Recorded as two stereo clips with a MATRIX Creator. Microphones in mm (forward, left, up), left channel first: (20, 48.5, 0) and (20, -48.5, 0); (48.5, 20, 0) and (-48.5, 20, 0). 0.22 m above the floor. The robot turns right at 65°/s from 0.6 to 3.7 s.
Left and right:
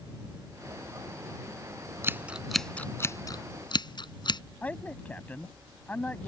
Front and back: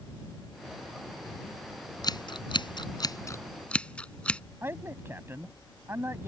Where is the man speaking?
145° left.